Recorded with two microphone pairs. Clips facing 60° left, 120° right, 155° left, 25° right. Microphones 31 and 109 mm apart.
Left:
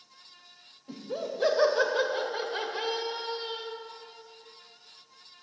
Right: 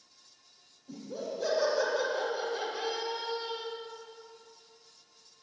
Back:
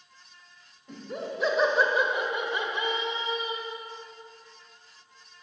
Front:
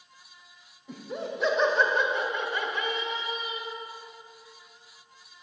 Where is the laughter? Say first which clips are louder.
Left 3 dB, front 1 dB; 60° left, 2.5 m; by 3.7 s 110° left, 1.9 m.